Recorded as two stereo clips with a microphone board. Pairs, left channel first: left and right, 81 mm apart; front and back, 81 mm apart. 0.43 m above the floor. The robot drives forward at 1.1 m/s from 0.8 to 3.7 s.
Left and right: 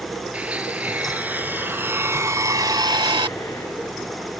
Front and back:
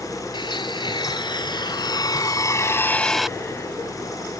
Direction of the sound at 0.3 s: 15° right.